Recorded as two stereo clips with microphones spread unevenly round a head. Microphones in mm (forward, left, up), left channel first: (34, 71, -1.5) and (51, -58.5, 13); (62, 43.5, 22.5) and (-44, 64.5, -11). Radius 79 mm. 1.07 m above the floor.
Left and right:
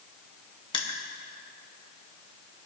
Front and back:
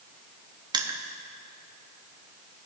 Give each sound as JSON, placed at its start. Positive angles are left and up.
{"t": 0.7, "sound": "crushing", "azimuth_deg": 145, "distance_m": 1.1}